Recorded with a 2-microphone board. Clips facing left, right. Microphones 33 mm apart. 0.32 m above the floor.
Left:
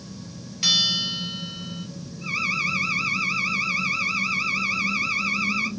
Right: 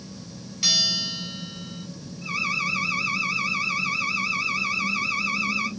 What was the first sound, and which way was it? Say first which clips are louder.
A bell: left 2 dB; 5° left (ahead or behind).